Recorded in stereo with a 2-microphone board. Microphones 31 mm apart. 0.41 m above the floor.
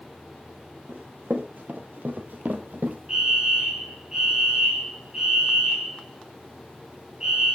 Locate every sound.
0.9 s running footsteps: 75° right (ahead or behind), 4.5 m; by 3.0 s 80° right, 2.5 m
3.1 s a fire alarm: 20° right (ahead or behind), 4 m